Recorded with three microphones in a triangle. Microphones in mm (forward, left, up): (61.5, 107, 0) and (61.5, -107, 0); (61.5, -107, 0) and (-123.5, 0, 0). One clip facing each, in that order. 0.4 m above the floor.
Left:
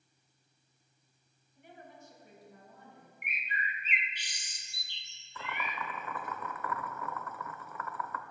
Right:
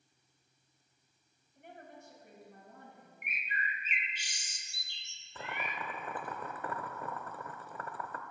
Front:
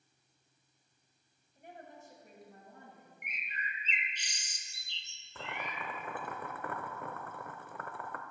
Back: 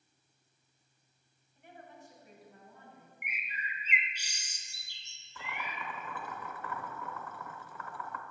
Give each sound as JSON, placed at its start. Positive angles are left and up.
{"t": 1.6, "sound": "a woman speaking", "azimuth_deg": -70, "distance_m": 2.5}
{"t": 3.2, "sound": "a bird", "azimuth_deg": -130, "distance_m": 0.9}
{"t": 5.3, "sound": "boiling", "azimuth_deg": -35, "distance_m": 0.6}